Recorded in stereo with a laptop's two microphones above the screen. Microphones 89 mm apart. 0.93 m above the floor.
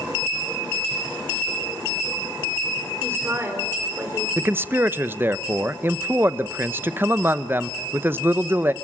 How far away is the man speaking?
About 0.8 m.